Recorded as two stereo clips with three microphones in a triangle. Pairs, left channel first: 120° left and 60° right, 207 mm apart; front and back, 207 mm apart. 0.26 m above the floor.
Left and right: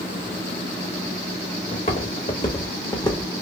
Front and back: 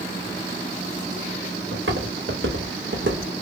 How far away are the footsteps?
About 1.4 m.